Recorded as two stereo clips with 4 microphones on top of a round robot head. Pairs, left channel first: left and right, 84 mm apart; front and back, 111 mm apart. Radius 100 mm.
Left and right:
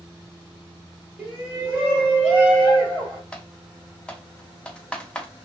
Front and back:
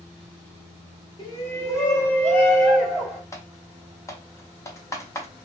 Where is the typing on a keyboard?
25° left, 1.0 m.